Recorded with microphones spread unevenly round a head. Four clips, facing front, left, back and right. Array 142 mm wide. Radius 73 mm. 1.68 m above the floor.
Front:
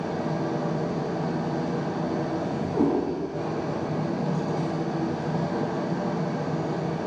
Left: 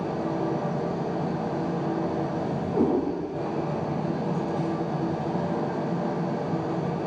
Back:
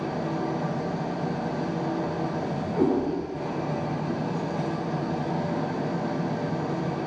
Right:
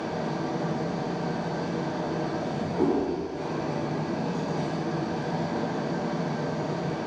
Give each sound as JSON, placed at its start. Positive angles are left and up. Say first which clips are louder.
{"t": 0.0, "sound": "an engine running", "louder": "left 2 dB, front 1 dB", "azimuth_deg": 55, "distance_m": 4.5}
{"t": 2.7, "sound": "a cat meowing", "louder": "left 1 dB, even", "azimuth_deg": 60, "distance_m": 4.5}